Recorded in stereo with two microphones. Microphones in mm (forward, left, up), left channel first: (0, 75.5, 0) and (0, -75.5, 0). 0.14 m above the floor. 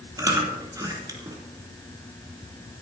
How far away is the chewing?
About 3.5 m.